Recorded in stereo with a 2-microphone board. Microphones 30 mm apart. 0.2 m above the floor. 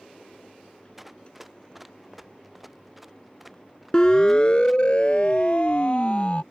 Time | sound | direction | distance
1.0 | running footsteps | 5° right (ahead or behind) | ?
3.9 | a siren | 25° left (ahead or behind) | ?